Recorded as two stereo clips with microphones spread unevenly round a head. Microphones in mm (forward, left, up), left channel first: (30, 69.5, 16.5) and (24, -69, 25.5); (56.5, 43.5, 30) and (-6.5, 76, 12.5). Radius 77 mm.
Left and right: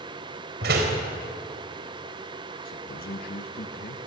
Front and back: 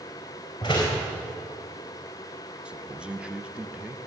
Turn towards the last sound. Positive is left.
turn(degrees=80)